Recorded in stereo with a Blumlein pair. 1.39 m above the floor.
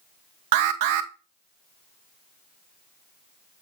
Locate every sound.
0.5 s an alarm: 50° right, 0.7 m